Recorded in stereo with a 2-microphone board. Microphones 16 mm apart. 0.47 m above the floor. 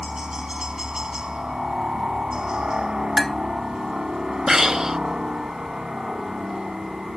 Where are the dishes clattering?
20° left (ahead or behind).